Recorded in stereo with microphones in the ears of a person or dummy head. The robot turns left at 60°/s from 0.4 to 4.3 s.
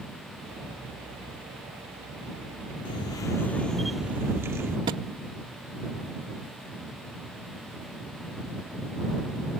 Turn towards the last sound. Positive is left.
turn(degrees=-20)  # may be behind; listen again after turning